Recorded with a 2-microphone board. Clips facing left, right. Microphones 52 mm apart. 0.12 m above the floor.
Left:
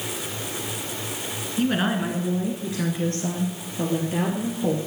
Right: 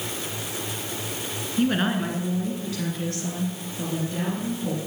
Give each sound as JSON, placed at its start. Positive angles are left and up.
{"t": 1.6, "sound": "a woman speaking", "side_deg": -5, "distance_m": 1.5}